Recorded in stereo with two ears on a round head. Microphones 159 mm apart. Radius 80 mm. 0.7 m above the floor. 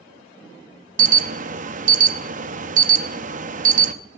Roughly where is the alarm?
Right.